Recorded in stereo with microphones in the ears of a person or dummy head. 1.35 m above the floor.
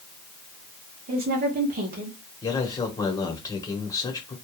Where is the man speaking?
20° left (ahead or behind), 1.0 m.